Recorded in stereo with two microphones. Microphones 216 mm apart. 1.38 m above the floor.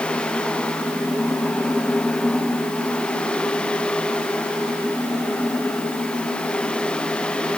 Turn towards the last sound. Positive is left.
No sound to turn to.